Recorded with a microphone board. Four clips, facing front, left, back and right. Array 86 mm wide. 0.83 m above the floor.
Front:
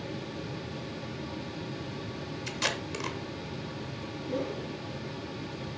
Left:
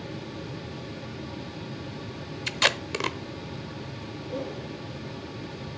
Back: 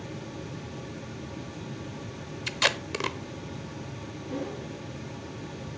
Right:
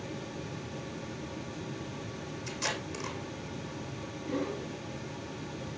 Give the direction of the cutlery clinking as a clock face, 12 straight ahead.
No cutlery clinking in this recording.